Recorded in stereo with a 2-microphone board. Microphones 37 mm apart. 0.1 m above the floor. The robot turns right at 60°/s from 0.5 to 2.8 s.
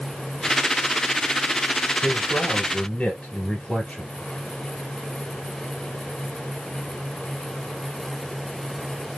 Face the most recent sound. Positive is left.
turn(degrees=145)